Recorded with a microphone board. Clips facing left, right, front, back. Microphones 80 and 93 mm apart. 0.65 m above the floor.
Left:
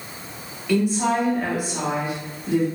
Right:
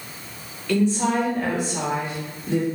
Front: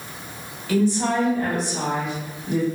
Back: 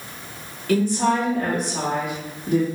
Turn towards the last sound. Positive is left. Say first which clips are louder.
# even, back 1 dB
turn(degrees=165)